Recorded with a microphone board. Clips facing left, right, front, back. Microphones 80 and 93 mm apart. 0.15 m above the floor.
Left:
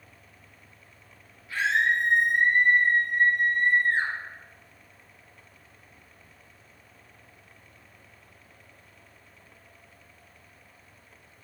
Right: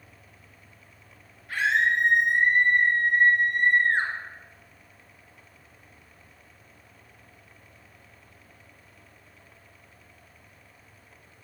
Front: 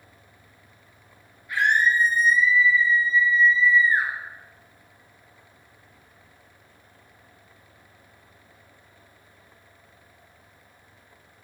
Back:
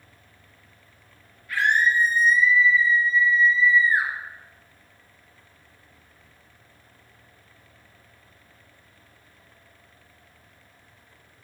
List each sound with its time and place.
1.5 s a scream: 70° right, 3.5 m; by 4.1 s 100° right, 2.5 m